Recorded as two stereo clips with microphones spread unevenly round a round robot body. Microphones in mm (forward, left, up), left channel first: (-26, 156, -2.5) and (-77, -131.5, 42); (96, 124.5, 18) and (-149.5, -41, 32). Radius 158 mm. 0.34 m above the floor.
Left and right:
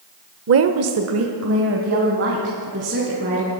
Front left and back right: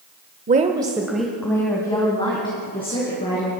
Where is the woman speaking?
100° right, 1.0 m; by 3.5 s 40° right, 4.5 m.